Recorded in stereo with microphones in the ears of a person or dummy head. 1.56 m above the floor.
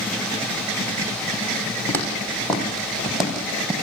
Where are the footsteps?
10° left (ahead or behind), 6.5 m; by 3.7 s 10° right (ahead or behind), 5.5 m.